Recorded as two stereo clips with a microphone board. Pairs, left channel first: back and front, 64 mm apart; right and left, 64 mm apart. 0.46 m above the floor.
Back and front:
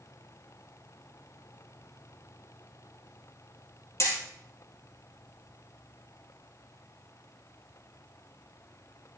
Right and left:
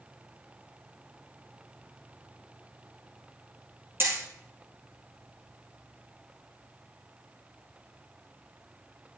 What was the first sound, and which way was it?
Hammering, 140° left.